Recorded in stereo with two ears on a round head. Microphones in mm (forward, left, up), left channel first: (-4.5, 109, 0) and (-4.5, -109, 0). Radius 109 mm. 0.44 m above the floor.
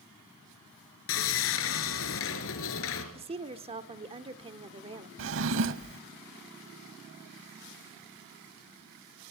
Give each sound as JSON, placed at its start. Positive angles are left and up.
{"t": 1.1, "sound": "sawing", "side_deg": 60, "distance_m": 3.0}
{"t": 3.1, "sound": "a woman speaking", "side_deg": -25, "distance_m": 1.0}
{"t": 5.2, "sound": "a drawer", "side_deg": -55, "distance_m": 0.6}